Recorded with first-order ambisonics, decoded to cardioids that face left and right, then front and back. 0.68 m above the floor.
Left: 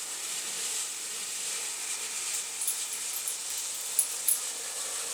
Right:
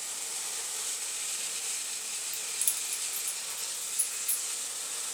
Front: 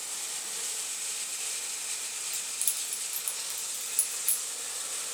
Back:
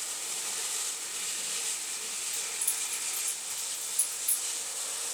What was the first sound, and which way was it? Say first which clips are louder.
Keys jangling: right 1 dB, even; 65° right.